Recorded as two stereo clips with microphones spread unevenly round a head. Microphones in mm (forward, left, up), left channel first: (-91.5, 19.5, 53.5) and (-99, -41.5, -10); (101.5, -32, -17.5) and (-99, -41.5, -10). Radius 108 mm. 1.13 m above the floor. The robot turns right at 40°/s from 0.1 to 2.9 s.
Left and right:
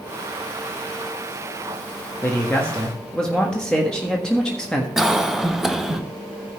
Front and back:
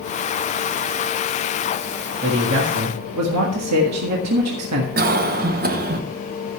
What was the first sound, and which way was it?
A man speaking, 140° left.